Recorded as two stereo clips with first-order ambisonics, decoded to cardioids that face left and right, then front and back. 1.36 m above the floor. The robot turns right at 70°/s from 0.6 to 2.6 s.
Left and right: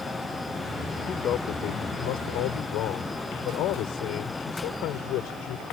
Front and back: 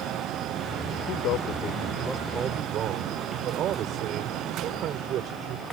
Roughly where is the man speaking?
Ahead.